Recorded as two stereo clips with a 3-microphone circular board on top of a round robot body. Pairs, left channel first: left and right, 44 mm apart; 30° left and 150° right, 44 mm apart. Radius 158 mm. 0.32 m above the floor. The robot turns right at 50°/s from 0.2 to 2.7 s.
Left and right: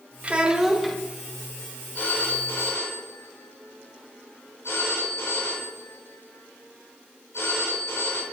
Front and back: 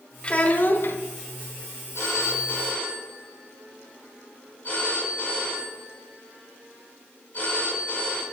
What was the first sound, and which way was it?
A child speaking, 30° right.